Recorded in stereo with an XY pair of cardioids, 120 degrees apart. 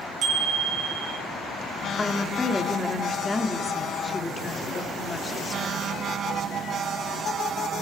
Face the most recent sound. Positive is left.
turn(degrees=20)